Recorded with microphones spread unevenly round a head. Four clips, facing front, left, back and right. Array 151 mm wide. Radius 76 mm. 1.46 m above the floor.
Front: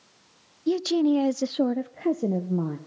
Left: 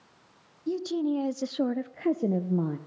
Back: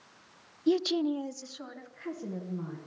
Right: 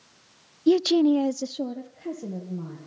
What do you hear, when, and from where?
0.7 s a woman speaking: 80° right, 1.0 m; by 2.8 s 45° left, 1.9 m